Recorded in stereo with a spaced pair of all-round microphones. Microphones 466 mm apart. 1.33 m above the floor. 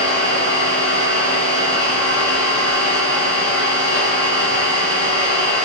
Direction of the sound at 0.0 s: 65° right (ahead or behind).